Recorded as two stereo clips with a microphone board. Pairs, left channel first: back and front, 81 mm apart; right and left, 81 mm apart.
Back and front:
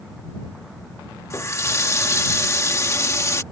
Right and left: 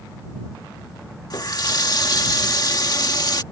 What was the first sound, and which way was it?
A running tap, 125° right.